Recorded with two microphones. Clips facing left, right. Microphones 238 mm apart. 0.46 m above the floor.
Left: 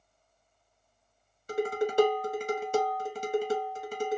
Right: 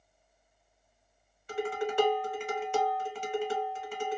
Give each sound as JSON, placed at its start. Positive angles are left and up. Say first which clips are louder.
{"t": 1.5, "sound": "dishes clattering", "louder": "left 4 dB", "side_deg": 45, "distance_m": 1.0}